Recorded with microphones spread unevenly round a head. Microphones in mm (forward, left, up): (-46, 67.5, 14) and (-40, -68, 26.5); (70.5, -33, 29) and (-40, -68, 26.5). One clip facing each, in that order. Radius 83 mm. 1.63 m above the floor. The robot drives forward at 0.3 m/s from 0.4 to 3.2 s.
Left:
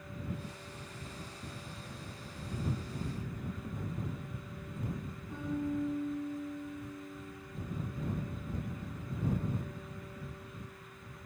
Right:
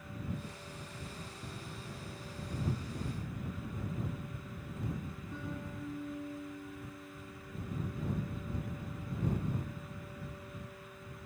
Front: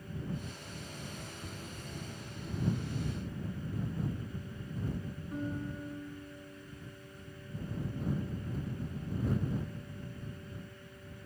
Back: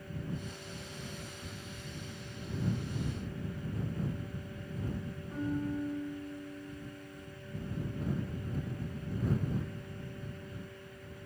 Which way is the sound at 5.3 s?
155° left.